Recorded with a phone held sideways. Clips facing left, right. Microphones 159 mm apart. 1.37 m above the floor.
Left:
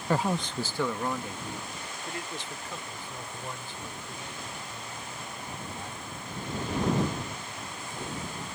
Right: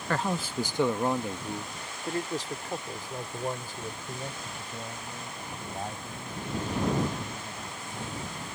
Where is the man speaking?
15° left (ahead or behind); by 8.3 s 50° right (ahead or behind).